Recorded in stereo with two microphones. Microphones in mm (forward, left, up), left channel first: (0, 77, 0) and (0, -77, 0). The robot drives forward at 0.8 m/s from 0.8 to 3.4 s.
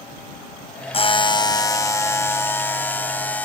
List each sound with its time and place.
0.9 s a buzzer: 40° left (ahead or behind); by 3.5 s 10° left (ahead or behind)